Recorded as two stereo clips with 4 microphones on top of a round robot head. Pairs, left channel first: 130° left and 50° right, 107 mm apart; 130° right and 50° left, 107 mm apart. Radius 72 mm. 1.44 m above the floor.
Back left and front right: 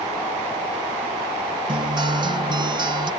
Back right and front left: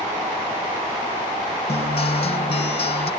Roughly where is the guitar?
Right.